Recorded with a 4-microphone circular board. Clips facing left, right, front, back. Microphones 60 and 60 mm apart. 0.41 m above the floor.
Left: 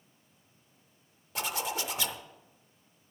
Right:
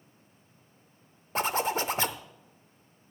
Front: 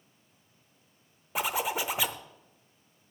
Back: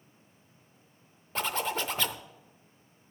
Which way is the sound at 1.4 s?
75° right.